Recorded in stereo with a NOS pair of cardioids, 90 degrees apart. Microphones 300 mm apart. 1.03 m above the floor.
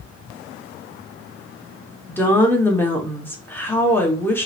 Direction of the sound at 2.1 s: 5° left.